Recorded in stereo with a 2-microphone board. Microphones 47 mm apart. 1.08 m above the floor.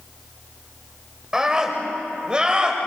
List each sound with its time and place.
1.3 s a scream: 15° right (ahead or behind), 4.5 m; by 2.8 s 20° right (ahead or behind), 5 m